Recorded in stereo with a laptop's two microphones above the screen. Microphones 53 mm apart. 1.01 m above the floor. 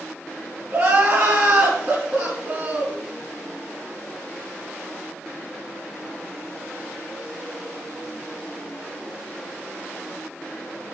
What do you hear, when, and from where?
0.7 s crying: 55° right (ahead or behind), 3.5 m